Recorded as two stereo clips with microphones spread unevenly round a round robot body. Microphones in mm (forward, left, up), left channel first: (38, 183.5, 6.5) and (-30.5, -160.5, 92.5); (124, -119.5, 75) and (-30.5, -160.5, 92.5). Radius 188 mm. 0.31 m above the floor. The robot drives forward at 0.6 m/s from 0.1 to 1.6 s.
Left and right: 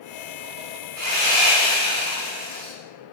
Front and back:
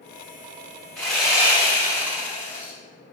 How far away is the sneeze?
No sneeze in this recording.